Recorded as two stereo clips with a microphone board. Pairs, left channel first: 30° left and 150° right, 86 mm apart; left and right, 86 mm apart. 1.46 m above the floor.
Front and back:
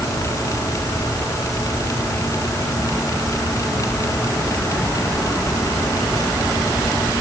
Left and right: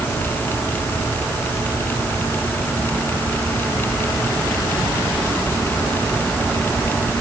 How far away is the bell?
I don't hear a bell.